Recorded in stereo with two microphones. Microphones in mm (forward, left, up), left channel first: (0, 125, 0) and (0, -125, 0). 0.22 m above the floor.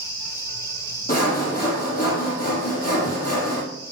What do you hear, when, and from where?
1.1 s sawing: 35° left (ahead or behind), 4 m